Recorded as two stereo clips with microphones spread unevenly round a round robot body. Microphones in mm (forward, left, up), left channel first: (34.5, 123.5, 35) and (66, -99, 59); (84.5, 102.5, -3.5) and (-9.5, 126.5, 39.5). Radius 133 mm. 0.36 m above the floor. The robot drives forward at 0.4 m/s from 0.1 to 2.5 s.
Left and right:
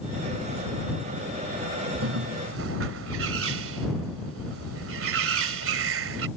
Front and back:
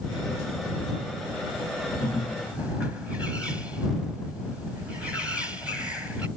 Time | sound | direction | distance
2.0 | a bird | 95° right | ?